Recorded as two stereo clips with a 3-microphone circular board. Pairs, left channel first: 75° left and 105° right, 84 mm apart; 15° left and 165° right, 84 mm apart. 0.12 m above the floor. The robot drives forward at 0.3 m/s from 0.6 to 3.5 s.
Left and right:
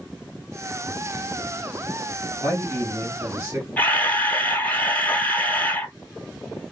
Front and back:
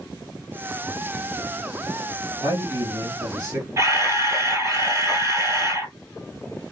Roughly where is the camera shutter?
Behind left.